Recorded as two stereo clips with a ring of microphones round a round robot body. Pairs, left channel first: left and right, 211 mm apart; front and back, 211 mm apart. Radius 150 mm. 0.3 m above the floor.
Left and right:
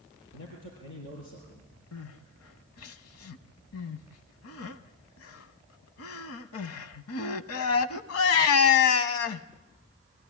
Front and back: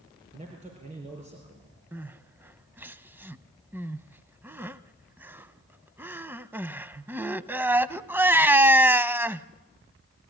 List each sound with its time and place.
0.3 s a man speaking: 125° left, 5 m
1.9 s crying: 100° left, 0.7 m